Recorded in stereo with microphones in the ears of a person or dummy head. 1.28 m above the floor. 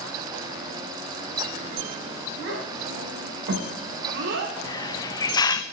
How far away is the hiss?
About 0.8 m.